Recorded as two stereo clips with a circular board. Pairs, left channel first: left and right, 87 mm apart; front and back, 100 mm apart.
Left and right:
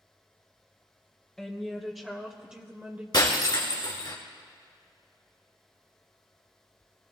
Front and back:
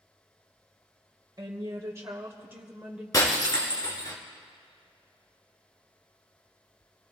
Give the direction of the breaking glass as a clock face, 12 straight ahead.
10 o'clock.